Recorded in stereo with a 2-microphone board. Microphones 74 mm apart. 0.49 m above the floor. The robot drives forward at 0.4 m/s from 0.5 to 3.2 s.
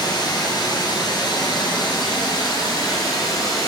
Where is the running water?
75° left (ahead or behind), 1.5 m; by 3.7 s 65° left (ahead or behind), 1.7 m.